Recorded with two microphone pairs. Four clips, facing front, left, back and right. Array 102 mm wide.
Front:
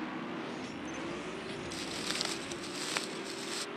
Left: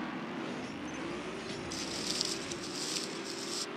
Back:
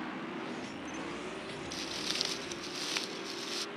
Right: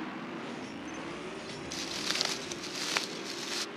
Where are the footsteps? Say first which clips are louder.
Right 1 dB, front 1 dB; 70° right.